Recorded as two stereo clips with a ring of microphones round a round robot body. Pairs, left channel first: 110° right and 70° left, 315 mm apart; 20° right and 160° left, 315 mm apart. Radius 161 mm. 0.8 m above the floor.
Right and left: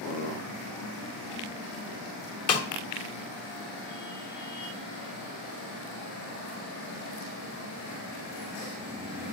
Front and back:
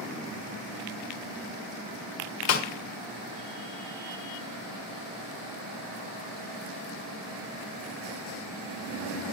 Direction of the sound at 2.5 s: 65° right.